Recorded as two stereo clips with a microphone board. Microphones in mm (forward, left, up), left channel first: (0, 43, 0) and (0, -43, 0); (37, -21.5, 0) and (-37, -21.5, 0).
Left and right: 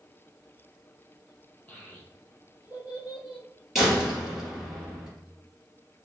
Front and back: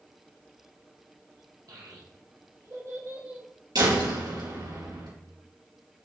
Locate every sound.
1.7 s a child speaking: 165° left, 3 m; by 3.5 s 110° left, 1.2 m
3.8 s a door slam: straight behind, 3 m